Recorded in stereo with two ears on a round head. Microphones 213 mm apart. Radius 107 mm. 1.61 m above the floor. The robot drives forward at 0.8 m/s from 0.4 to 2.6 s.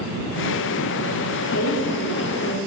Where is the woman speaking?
70° left (ahead or behind), 3.5 m; by 2.6 s 60° left (ahead or behind), 4 m.